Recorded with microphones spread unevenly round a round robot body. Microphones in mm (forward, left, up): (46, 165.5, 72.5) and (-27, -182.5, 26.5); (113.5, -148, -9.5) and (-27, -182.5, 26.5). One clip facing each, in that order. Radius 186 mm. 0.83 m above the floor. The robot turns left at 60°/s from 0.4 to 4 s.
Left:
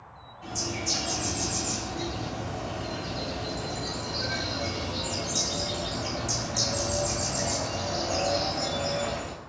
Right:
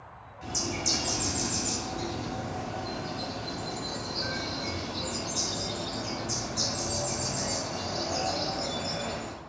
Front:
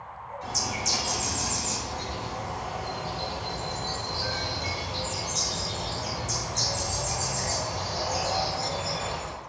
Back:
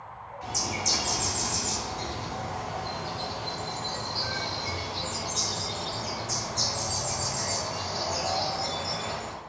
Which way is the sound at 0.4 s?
90° right.